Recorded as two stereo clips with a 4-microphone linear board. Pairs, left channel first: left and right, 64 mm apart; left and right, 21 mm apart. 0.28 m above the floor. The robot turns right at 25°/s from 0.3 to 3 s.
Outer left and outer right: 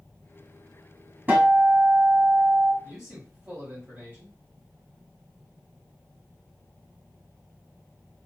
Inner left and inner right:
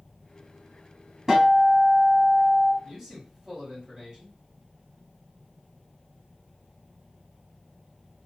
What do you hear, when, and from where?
1.3 s a guitar: 150° right, 1.5 m; by 2.7 s 115° right, 1.5 m
2.8 s a man speaking: 15° right (ahead or behind), 1.5 m; by 4.4 s 10° right (ahead or behind), 1.5 m